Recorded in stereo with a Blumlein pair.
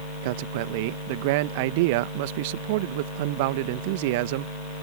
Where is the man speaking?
50° right.